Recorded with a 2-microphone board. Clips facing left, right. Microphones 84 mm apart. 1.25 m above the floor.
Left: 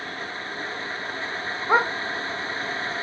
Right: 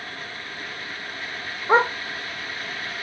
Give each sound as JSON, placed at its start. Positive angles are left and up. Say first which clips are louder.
{"t": 1.7, "sound": "a dog barking", "louder": "right 3 dB", "side_deg": -20, "distance_m": 1.9}